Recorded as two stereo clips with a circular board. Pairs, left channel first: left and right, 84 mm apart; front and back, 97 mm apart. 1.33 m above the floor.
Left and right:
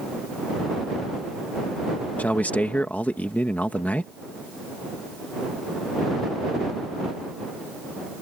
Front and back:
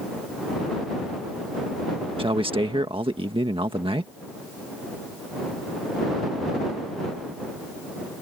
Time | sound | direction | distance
2.2 | a man speaking | 160° left | ?